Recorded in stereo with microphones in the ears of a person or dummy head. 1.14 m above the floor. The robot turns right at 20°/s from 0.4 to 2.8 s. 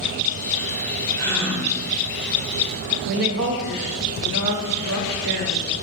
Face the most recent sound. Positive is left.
turn(degrees=-60)  # may be behind; listen again after turning